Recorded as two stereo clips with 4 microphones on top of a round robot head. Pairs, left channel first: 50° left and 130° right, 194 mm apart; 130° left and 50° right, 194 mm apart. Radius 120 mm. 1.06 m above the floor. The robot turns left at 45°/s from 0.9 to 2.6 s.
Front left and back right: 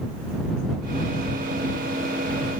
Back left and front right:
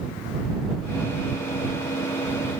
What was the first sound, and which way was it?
Only background noise.